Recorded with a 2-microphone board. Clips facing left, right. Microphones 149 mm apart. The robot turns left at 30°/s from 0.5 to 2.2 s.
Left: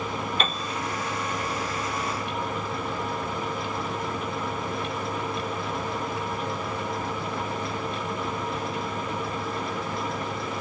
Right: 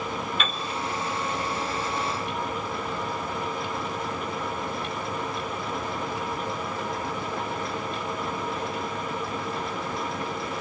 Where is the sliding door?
I don't hear a sliding door.